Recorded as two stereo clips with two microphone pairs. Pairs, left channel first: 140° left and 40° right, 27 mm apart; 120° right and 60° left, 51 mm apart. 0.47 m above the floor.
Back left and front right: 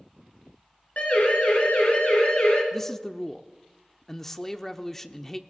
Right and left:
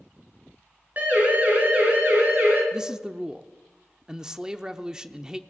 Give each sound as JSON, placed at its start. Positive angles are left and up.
{"t": 1.0, "sound": "a siren", "azimuth_deg": 115, "distance_m": 5.5}
{"t": 2.7, "sound": "a man speaking", "azimuth_deg": 105, "distance_m": 0.7}